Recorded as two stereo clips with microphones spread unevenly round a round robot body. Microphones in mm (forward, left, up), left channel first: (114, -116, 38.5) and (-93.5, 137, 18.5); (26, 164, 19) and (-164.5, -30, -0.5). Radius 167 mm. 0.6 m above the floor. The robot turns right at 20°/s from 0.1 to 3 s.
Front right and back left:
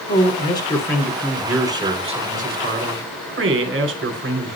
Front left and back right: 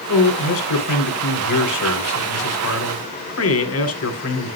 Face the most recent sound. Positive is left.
turn(degrees=75)